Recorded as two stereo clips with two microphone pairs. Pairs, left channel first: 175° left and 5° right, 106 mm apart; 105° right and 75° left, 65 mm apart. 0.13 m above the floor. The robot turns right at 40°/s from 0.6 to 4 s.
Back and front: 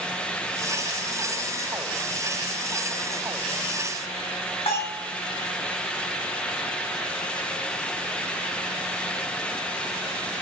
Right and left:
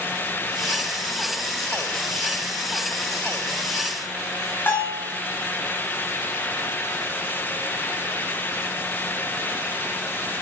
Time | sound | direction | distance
4.7 | a bell | 165° right | 6 m